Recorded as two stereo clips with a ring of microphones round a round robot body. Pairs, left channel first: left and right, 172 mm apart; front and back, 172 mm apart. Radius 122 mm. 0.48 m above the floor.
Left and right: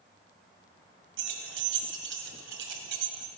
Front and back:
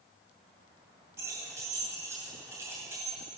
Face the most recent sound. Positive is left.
turn(degrees=-100)